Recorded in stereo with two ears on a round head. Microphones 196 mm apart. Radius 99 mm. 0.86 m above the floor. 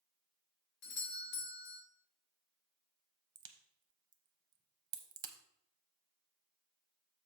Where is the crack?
20° right (ahead or behind), 0.7 m.